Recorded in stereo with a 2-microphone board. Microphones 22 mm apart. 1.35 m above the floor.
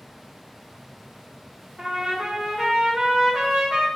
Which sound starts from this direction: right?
A trumpet, at 1.8 s.